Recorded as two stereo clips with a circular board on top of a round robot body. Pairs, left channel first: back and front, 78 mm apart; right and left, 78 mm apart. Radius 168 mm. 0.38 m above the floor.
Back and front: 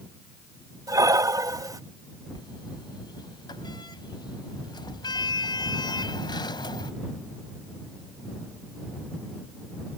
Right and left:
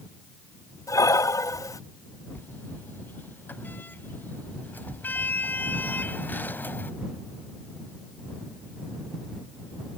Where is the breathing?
45° right.